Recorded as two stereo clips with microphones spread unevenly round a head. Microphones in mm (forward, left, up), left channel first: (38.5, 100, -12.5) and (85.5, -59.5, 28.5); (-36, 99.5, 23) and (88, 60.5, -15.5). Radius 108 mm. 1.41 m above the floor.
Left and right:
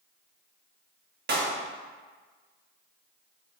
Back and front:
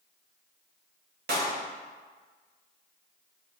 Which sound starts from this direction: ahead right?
A clap, at 1.3 s.